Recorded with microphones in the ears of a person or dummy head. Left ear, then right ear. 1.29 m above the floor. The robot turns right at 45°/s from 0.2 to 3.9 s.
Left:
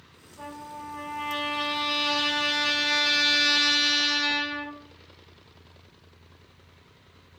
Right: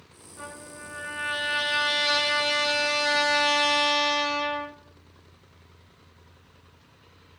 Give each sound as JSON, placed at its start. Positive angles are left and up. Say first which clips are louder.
{"t": 0.4, "sound": "a trumpet", "louder": "left 2 dB", "azimuth_deg": -110, "distance_m": 3.0}